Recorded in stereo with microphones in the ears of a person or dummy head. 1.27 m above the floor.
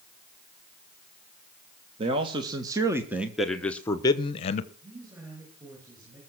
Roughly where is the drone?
I don't hear a drone.